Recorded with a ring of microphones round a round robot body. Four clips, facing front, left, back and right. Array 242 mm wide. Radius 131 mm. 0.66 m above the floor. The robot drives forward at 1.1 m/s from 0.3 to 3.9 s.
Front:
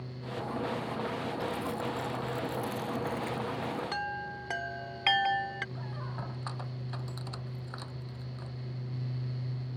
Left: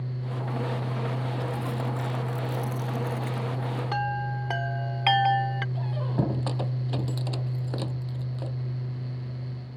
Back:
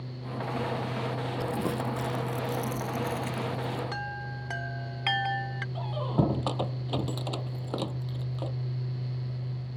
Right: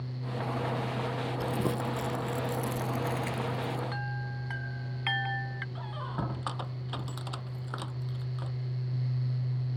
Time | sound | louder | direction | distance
1.4 | crumpling | even, back 6 dB | 130° right | ?
3.9 | a chime | left 9 dB, front 1 dB | 85° left | ?
5.8 | a squeak | left 5 dB, back 12 dB | 145° left | ?